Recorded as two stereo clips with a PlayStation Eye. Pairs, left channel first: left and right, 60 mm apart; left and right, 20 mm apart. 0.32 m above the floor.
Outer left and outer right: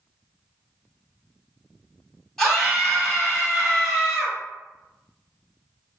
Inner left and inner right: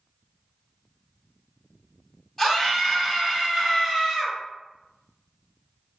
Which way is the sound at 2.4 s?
5° left (ahead or behind).